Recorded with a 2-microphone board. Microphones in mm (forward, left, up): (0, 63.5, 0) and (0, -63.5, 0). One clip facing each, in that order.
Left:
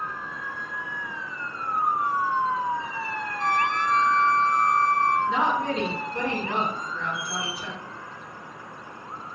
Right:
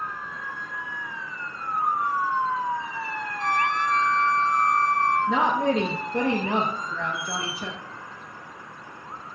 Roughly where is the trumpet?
Centre.